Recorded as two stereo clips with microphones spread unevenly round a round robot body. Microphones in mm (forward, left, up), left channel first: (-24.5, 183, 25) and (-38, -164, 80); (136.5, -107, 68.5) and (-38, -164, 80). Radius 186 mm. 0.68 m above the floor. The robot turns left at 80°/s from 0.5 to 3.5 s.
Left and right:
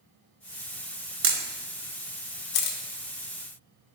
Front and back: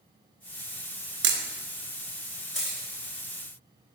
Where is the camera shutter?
150° right, 0.8 m; by 2.8 s 90° left, 0.8 m.